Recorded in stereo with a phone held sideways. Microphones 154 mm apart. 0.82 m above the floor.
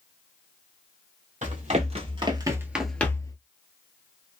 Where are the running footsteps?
55° right (ahead or behind), 1.4 m; by 3.4 s 25° left (ahead or behind), 0.8 m.